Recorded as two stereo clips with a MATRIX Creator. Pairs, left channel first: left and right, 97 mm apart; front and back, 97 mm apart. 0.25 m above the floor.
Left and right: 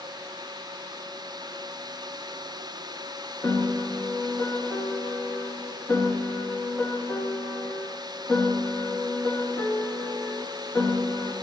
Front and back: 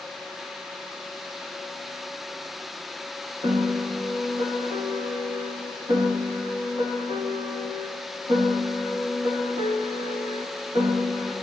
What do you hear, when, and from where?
3.4 s a piano: 160° left, 1.2 m